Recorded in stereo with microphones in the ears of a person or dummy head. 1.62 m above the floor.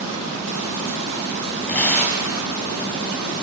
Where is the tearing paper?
5° left (ahead or behind), 4.5 m.